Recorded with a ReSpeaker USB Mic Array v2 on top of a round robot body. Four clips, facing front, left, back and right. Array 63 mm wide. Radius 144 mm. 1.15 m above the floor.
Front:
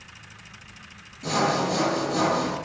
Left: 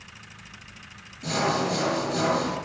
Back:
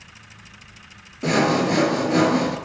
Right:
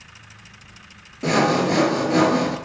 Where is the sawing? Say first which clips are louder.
Right 7 dB, back 4 dB; 135° right, 4 m.